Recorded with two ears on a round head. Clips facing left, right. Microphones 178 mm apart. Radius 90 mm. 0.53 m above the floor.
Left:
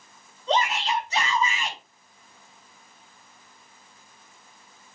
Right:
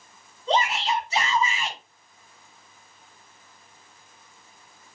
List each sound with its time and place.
0.5 s a shout: 10° right (ahead or behind), 4.5 m